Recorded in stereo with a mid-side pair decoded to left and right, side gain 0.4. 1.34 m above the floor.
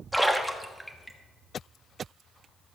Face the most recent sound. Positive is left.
turn(degrees=-5)